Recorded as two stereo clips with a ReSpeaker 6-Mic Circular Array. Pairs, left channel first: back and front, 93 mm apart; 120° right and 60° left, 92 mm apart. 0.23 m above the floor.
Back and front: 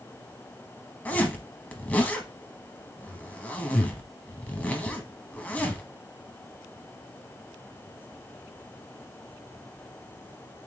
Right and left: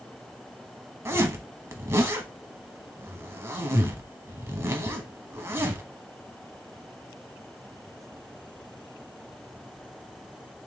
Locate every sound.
1.1 s a zipper: 110° left, 0.9 m